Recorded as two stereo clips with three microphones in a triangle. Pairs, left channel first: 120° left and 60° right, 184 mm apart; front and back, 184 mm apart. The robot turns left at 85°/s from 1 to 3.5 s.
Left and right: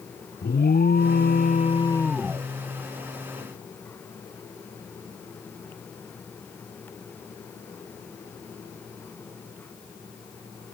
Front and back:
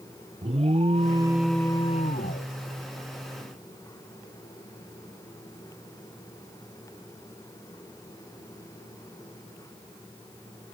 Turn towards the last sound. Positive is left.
turn(degrees=-80)